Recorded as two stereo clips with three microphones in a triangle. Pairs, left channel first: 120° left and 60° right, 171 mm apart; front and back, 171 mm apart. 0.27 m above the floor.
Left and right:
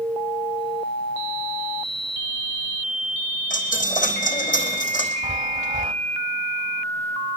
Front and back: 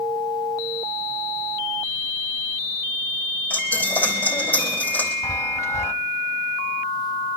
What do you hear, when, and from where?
3.5 s a dropped coin: 80° left, 4 m
5.2 s a chime: 60° right, 1.0 m